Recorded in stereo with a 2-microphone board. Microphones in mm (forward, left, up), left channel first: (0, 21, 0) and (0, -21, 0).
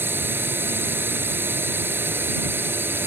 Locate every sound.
0.0 s a drone: 60° right (ahead or behind)